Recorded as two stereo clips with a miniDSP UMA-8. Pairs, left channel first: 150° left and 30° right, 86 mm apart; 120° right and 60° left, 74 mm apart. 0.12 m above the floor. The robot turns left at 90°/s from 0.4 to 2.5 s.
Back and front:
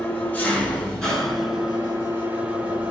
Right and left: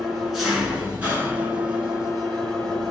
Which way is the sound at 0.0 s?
140° left.